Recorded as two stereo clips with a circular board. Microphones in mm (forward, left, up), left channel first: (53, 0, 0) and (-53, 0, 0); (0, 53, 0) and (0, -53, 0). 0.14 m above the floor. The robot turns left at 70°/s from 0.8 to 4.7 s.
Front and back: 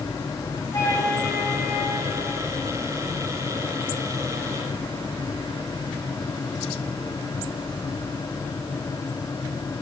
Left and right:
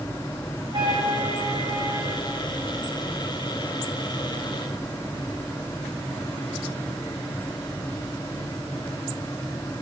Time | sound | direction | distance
0.7 | a flute | 55° right | 1.9 m